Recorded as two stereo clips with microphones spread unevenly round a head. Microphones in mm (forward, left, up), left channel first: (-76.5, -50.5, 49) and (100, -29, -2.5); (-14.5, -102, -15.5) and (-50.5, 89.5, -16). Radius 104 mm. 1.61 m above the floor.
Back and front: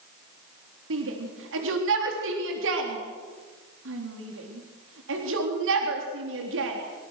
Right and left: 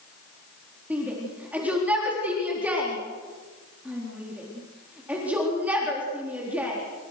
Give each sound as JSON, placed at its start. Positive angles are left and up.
{"t": 0.9, "sound": "a shout", "azimuth_deg": 15, "distance_m": 3.5}